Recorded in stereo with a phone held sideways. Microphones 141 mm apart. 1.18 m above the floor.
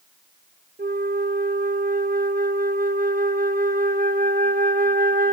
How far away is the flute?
About 0.8 m.